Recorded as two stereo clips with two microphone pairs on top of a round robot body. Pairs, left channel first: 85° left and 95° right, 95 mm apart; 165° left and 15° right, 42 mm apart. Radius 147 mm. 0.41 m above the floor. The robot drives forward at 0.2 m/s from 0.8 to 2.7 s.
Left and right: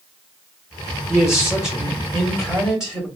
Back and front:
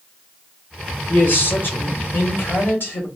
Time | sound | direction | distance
1.1 | a man speaking | 170° left | 1.2 m